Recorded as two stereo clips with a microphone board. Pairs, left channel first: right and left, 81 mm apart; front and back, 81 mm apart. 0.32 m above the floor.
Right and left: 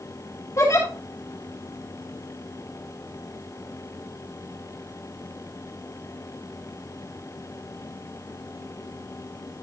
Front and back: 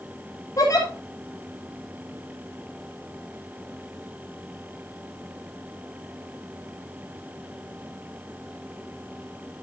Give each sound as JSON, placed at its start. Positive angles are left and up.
{"t": 0.6, "sound": "a giggle", "azimuth_deg": -45, "distance_m": 6.0}